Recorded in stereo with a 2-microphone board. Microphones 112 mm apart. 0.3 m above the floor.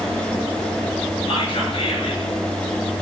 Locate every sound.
1.3 s whispering: 50° left (ahead or behind), 6 m